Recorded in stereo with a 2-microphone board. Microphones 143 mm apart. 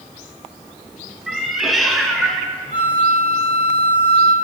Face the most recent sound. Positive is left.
turn(degrees=50)  # may be behind; listen again after turning